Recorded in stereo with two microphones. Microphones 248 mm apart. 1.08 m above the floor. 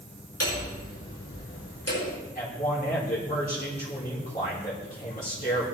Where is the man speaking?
30° left (ahead or behind), 3.5 m.